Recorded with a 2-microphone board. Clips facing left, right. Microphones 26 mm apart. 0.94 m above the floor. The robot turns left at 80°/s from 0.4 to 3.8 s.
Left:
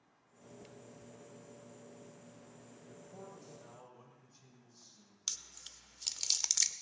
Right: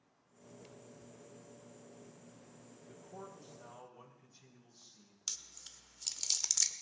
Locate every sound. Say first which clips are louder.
2.9 s a man speaking: right 2 dB; 85° right, 6 m; by 5.2 s 160° right, 6 m
5.3 s chewing: left 2 dB; 20° left (ahead or behind), 0.6 m